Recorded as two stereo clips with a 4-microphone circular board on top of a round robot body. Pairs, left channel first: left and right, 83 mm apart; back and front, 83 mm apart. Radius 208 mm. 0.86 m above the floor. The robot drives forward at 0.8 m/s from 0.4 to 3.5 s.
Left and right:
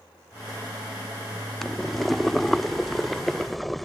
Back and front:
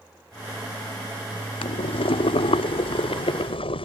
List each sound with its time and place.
1.6 s boiling: 175° left; by 3.9 s straight behind